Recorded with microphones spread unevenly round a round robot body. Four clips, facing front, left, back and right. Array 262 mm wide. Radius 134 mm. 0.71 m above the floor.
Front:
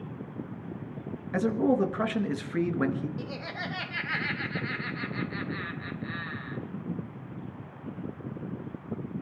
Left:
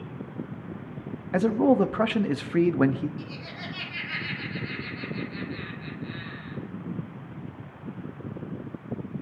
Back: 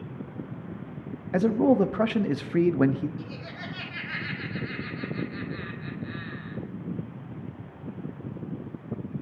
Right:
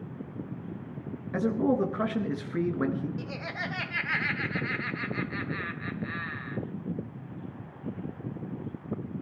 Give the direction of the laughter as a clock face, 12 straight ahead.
1 o'clock.